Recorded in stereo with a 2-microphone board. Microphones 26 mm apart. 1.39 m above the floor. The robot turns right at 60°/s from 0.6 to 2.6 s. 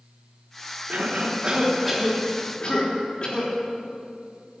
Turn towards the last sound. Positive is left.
turn(degrees=40)